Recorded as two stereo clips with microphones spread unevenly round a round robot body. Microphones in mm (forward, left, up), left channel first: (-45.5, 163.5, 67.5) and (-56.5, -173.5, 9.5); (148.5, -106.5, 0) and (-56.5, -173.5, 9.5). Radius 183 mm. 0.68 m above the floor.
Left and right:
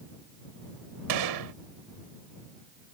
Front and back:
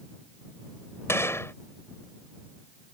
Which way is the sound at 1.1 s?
60° right.